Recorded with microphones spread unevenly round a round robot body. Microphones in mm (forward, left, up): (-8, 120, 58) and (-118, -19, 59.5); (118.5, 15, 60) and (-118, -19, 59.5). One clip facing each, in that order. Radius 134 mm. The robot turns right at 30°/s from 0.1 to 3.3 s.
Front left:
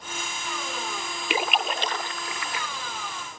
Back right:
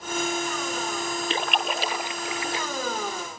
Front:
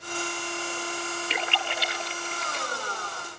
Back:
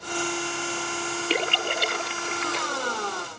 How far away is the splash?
About 0.7 m.